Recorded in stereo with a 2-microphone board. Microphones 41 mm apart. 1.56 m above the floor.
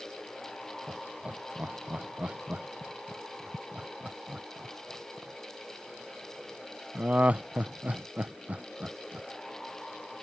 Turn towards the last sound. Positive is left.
turn(degrees=-35)  # may be behind; listen again after turning